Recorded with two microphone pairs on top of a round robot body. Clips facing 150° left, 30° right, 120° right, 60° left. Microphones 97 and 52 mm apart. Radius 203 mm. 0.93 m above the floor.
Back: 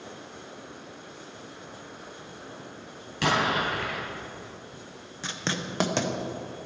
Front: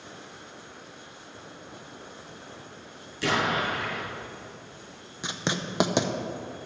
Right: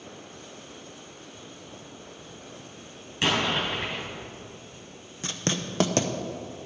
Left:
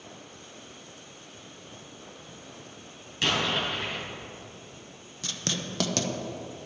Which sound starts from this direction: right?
Writing, at 5.2 s.